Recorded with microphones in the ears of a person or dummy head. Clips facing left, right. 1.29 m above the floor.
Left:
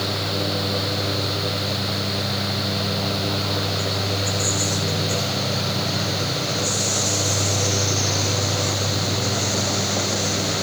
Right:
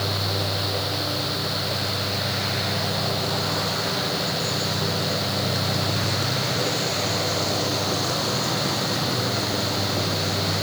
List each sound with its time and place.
Only background noise.